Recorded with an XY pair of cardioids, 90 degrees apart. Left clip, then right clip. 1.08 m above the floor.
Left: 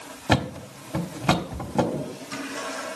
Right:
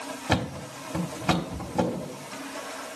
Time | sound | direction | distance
0.3 | a thud | 40° left | 1.2 m